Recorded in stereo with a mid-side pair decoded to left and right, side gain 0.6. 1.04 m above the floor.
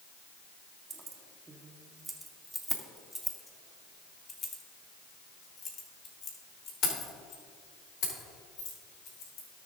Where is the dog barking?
I don't hear a dog barking.